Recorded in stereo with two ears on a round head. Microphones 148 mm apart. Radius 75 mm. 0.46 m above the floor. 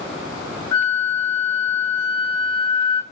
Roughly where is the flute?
Centre.